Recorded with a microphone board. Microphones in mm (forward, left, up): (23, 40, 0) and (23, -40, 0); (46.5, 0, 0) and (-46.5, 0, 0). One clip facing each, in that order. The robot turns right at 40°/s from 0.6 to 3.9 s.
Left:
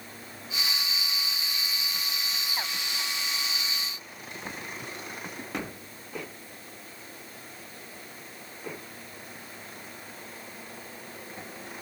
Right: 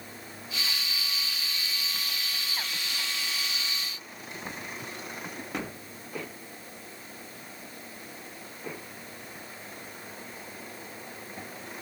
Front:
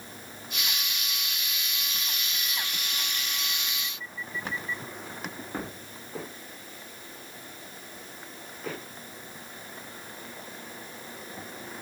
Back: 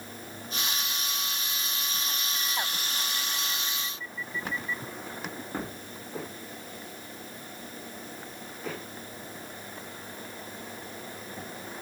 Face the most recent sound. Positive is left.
No sound to turn to.